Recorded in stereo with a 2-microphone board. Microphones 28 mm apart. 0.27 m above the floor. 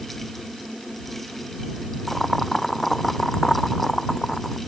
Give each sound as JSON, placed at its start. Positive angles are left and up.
{"t": 2.1, "sound": "boiling", "side_deg": 15}